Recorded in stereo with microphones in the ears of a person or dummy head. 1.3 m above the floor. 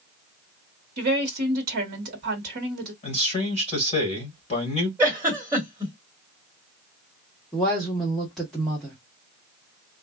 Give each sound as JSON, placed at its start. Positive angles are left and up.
{"t": 1.0, "sound": "a woman speaking", "side_deg": -50, "distance_m": 1.0}
{"t": 3.0, "sound": "a man speaking", "side_deg": 30, "distance_m": 1.9}
{"t": 5.0, "sound": "a giggle", "side_deg": -10, "distance_m": 1.7}
{"t": 7.5, "sound": "a woman speaking", "side_deg": 5, "distance_m": 1.1}